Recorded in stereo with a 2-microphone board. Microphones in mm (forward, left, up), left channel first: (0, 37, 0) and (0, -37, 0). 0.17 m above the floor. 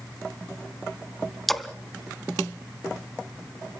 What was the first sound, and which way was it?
A splash, centre (ahead or behind).